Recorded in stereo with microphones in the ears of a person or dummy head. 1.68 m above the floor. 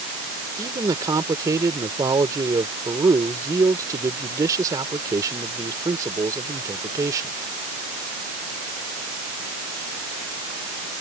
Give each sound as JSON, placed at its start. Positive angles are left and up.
{"t": 0.6, "sound": "a man speaking", "side_deg": -20}